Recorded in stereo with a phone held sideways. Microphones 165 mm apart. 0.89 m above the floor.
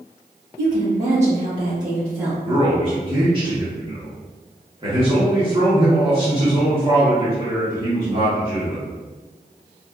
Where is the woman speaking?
55° right (ahead or behind), 1.6 m; by 2.3 s 10° right (ahead or behind), 1.4 m.